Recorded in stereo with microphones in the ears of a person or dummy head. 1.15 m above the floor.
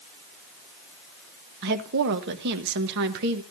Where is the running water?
No running water in this recording.